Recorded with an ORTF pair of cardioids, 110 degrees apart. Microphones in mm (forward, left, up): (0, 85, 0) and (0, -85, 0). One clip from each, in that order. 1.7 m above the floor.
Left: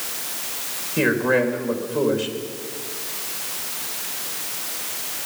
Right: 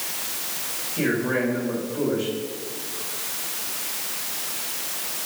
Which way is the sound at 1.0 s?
55° left.